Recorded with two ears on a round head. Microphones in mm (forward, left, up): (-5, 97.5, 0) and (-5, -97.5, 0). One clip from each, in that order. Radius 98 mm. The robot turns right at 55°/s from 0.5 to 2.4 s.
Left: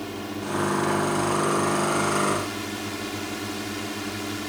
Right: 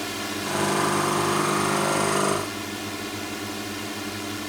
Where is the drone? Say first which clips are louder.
Right 3 dB; 115° right; by 4.5 s 10° right.